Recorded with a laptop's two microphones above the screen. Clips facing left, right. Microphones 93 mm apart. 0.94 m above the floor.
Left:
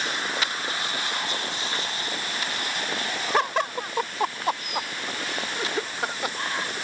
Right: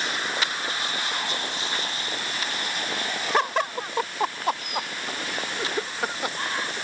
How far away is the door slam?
No door slam in this recording.